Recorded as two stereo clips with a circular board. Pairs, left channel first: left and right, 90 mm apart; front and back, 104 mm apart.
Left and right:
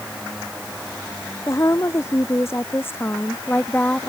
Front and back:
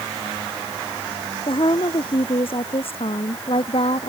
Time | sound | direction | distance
1.5 | a woman speaking | 35° left | ?